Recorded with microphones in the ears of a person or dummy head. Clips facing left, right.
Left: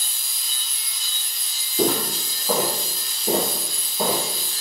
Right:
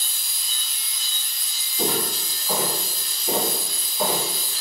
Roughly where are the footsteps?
Left.